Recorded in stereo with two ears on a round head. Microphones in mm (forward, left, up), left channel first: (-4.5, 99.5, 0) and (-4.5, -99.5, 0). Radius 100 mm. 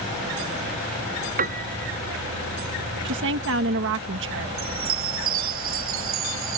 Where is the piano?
40° right (ahead or behind).